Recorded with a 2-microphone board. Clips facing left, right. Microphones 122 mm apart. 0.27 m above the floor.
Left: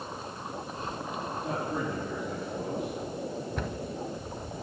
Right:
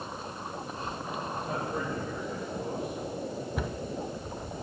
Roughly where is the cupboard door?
Centre.